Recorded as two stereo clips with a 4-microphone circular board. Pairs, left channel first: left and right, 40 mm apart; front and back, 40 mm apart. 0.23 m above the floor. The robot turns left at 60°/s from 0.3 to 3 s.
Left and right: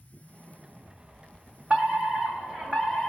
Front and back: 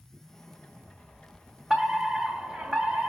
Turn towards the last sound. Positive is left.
turn(degrees=-160)